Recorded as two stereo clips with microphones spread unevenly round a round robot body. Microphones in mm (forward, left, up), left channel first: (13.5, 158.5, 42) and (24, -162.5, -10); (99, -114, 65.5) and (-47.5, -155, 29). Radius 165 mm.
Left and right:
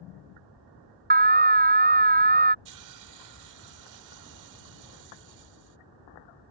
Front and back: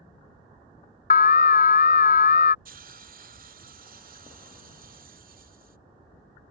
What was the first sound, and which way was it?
An alarm, 30° right.